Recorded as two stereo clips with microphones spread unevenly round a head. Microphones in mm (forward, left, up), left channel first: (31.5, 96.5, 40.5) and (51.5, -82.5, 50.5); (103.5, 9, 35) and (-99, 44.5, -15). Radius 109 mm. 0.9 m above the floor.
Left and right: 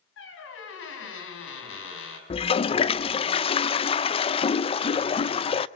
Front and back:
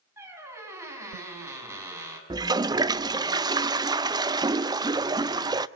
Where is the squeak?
90° left, 5.5 m.